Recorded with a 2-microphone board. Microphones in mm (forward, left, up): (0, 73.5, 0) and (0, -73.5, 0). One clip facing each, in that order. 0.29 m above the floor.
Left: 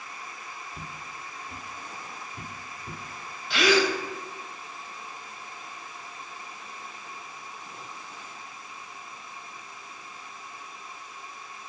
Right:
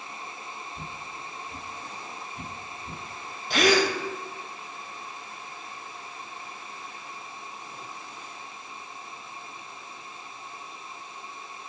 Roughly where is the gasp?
Right.